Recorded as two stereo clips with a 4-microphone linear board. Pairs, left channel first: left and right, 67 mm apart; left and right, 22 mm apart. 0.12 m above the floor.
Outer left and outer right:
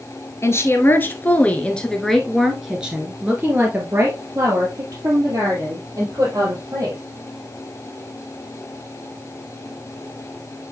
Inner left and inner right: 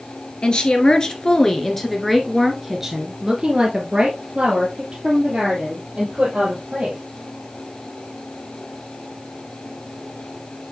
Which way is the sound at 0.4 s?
40° left (ahead or behind).